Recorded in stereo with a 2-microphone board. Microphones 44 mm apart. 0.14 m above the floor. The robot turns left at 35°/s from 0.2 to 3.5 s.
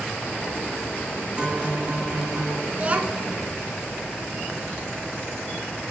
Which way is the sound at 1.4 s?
20° right.